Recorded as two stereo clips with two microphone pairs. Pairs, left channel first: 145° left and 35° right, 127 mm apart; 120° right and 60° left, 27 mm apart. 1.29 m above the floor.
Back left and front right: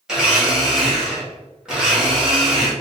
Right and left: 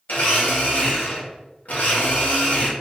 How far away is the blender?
About 0.9 m.